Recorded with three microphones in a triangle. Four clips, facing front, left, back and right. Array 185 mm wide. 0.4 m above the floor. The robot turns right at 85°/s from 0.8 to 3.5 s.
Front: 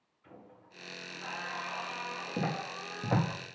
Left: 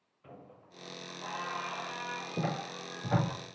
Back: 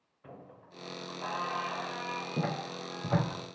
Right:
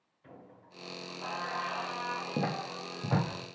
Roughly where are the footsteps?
Right.